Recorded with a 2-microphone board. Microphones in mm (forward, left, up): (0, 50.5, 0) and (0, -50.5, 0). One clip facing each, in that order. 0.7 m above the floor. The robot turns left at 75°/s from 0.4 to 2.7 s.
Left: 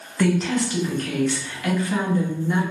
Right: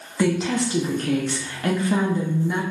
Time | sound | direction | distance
0.2 | a woman speaking | 20° right | 0.6 m